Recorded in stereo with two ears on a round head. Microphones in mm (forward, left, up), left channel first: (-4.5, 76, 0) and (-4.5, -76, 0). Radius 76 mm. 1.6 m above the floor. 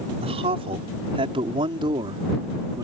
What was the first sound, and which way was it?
A man speaking, 35° right (ahead or behind).